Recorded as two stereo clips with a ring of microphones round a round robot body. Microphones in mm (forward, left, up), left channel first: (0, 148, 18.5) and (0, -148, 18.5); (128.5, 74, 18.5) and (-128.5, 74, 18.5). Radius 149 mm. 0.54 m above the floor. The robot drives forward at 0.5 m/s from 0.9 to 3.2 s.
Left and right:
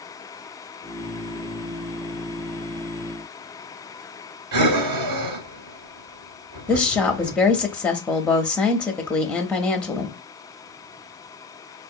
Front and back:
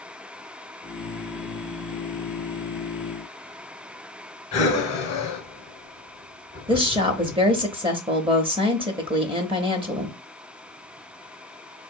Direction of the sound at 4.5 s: 70° right.